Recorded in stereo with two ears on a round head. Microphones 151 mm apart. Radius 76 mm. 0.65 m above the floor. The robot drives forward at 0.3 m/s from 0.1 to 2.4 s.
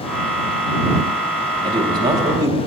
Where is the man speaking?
25° right (ahead or behind), 0.8 m; by 2.6 s 20° right (ahead or behind), 0.9 m.